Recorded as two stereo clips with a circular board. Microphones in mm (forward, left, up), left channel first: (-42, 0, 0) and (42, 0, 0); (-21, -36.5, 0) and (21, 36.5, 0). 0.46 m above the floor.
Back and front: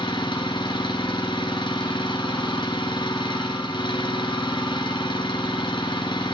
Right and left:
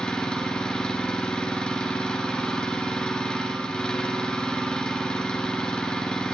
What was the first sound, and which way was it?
An engine running, 160° left.